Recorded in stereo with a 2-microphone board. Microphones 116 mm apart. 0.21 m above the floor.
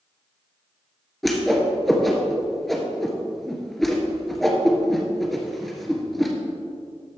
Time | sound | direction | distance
1.2 | a whoosh | centre (ahead or behind) | 1.5 m